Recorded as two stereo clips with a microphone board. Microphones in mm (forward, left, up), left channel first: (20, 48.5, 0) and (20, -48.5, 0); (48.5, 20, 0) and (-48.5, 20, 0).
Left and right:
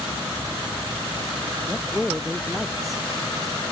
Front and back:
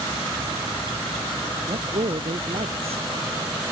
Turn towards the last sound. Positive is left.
turn(degrees=180)